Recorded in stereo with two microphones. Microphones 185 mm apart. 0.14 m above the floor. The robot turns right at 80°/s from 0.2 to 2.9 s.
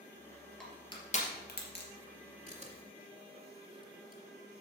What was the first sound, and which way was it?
Crushing, 5° left (ahead or behind).